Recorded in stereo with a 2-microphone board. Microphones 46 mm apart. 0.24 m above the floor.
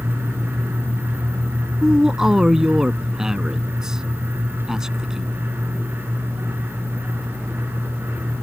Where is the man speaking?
15° right (ahead or behind).